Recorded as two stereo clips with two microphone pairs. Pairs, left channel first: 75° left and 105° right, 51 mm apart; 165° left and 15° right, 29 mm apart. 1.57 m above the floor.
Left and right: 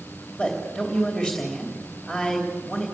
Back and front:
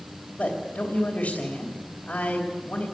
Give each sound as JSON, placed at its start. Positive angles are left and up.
{"t": 0.4, "sound": "a man speaking", "azimuth_deg": 165, "distance_m": 3.0}